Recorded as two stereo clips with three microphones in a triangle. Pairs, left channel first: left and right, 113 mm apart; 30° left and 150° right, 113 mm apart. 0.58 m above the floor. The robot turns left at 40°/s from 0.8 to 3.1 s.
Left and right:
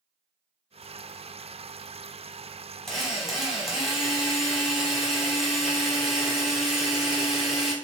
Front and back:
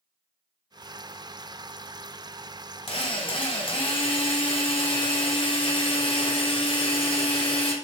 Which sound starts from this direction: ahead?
A drill, at 2.9 s.